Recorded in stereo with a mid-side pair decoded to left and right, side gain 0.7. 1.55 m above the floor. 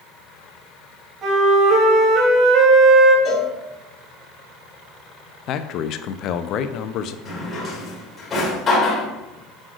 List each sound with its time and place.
1.2 s a flute: 40° right, 3 m
3.2 s a cowbell: 30° left, 2.5 m
5.5 s a man speaking: 50° left, 0.6 m
7.2 s a drawer: 25° left, 3 m